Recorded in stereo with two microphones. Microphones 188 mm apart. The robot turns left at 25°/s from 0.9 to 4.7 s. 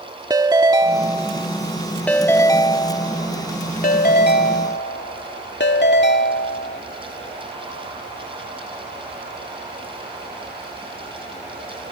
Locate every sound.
0.3 s a ringtone: 160° right; by 6.8 s 105° left